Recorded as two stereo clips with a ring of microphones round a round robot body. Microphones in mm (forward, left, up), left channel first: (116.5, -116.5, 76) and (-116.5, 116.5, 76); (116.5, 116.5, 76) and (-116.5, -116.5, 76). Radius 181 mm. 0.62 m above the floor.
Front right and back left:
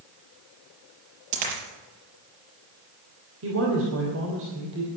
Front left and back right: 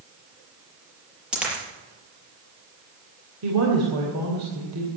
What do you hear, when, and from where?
1.3 s a dropped coin: 140° left, 5.5 m
3.4 s a woman speaking: 175° right, 3 m